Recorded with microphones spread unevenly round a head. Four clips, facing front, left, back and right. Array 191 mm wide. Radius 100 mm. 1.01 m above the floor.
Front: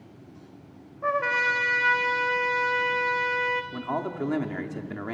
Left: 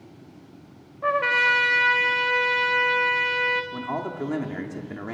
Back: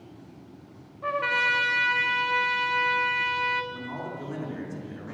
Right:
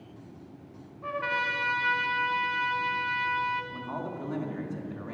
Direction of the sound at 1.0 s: 70° left.